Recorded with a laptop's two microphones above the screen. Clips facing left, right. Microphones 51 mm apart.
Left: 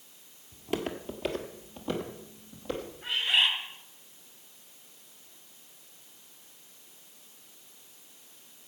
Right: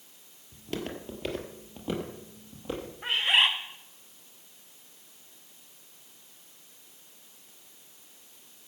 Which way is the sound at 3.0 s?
65° right (ahead or behind).